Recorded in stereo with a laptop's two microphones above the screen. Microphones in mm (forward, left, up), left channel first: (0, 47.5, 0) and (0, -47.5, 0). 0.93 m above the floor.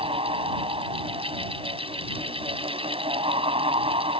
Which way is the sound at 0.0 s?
85° right.